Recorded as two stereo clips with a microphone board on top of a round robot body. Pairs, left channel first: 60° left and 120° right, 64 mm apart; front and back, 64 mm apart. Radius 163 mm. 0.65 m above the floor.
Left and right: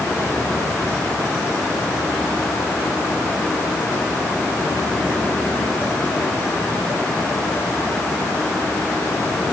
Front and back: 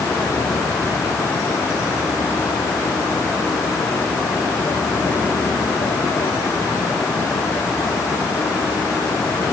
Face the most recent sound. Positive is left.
No sound to turn to.